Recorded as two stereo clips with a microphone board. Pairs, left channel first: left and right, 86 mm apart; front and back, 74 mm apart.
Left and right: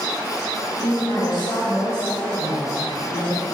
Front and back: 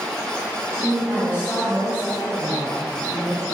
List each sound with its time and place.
0.8 s a woman speaking: 50° left, 2 m